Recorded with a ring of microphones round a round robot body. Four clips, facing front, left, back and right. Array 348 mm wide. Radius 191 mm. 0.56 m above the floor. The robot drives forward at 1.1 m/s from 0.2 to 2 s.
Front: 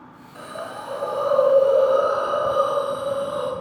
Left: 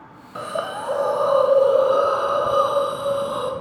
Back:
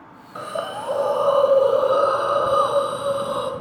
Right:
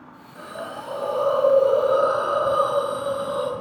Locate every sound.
0.3 s a hiss: 115° left, 1.3 m; by 3.5 s 155° left, 2.5 m